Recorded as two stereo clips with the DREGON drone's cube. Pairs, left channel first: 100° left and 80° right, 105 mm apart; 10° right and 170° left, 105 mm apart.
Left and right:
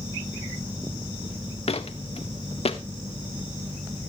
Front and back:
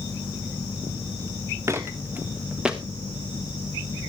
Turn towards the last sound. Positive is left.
turn(degrees=85)